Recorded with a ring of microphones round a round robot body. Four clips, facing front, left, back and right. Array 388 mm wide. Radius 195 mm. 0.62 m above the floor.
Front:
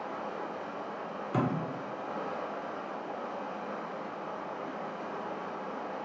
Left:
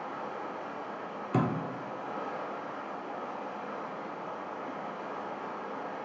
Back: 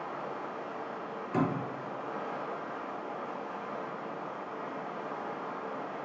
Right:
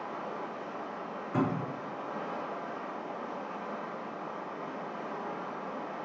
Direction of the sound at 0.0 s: 25° left.